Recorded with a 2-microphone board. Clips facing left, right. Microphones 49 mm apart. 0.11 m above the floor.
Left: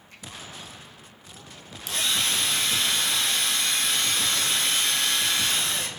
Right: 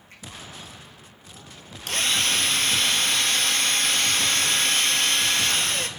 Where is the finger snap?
40° right (ahead or behind), 5 m.